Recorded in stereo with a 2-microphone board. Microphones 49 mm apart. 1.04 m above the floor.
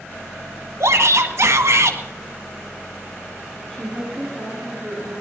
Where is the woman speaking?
5° left (ahead or behind), 9 m.